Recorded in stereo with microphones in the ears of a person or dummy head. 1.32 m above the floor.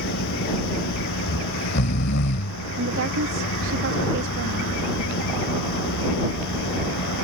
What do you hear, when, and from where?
0.0 s a machine running: 70° left (ahead or behind)
1.3 s snoring: 60° left (ahead or behind)
2.8 s a woman speaking: 70° right (ahead or behind)